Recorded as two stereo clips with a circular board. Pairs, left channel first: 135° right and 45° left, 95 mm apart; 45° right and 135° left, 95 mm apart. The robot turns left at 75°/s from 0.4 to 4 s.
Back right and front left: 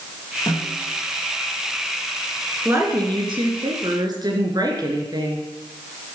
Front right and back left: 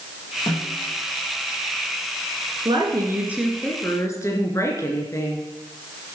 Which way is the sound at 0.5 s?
95° right.